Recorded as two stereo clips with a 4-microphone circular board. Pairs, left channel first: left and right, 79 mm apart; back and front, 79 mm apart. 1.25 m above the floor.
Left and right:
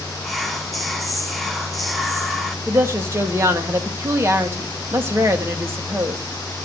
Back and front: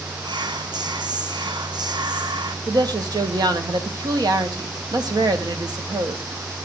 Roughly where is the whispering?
Ahead.